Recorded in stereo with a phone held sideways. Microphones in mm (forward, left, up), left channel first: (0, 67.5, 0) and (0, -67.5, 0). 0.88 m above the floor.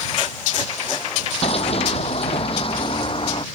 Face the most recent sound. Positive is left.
turn(degrees=40)  # may be behind; listen again after turning